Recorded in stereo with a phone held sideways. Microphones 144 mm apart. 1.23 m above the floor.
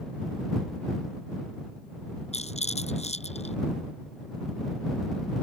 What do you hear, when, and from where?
2.3 s a rattle: 50° left (ahead or behind)